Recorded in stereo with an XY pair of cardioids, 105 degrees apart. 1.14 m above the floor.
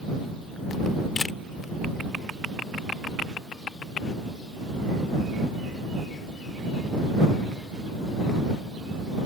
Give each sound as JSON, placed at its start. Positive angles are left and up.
{"t": 1.2, "sound": "a camera shutter", "azimuth_deg": 30}